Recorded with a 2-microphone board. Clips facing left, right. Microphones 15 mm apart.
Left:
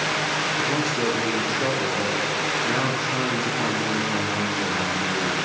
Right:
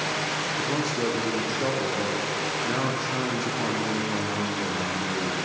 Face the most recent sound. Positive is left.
turn(degrees=0)  # may be behind; listen again after turning